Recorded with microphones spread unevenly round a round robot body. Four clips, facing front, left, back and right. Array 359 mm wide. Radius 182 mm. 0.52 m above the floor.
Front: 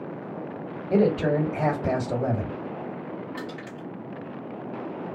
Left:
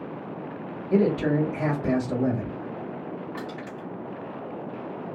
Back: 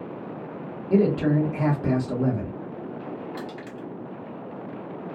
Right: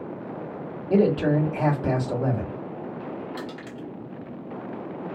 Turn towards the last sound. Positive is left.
turn(degrees=-145)